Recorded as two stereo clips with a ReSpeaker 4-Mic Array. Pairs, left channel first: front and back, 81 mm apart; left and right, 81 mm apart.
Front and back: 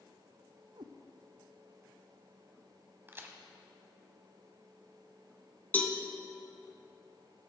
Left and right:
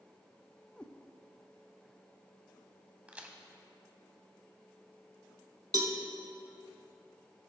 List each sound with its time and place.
0.8 s a cat meowing: 165° left, 0.9 m
3.1 s a crack: 150° right, 1.0 m
5.7 s a cowbell: 65° right, 1.0 m